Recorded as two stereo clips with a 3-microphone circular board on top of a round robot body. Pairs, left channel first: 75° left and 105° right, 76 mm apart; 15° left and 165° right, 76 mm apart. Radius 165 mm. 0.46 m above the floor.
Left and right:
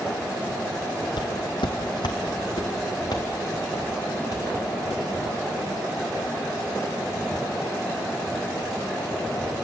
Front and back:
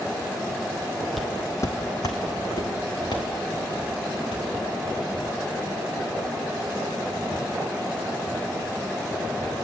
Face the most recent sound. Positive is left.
turn(degrees=35)